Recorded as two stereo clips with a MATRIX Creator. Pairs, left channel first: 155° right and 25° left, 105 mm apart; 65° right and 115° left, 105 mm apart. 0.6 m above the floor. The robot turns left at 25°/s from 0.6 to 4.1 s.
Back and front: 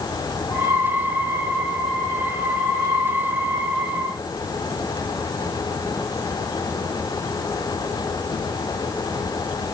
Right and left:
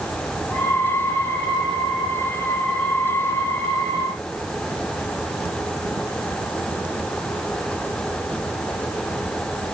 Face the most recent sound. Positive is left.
No sound to turn to.